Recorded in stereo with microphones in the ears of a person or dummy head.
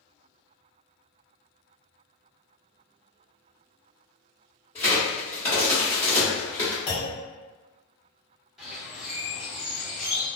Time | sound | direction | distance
4.8 | a crack | 10° left (ahead or behind) | 1.3 m
6.9 | a clunk | 30° left (ahead or behind) | 1.1 m
8.6 | a bird | 5° right (ahead or behind) | 1.0 m